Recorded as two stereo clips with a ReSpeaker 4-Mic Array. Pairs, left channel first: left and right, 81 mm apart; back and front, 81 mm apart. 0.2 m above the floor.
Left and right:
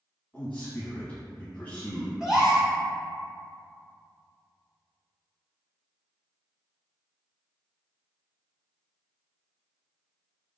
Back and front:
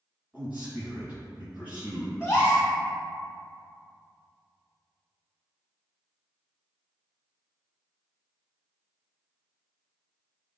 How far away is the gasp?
About 1.4 m.